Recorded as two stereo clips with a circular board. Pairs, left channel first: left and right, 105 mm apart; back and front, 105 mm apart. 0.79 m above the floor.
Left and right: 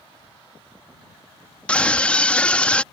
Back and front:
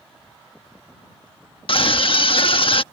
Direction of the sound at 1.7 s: 165° left.